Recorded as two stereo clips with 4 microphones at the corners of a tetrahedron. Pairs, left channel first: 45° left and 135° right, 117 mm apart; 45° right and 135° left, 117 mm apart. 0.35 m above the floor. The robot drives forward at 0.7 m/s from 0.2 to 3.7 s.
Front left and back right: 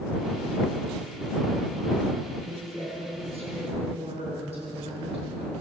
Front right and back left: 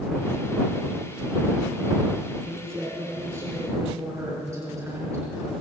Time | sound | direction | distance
2.5 | a woman speaking | 155° right | 3.5 m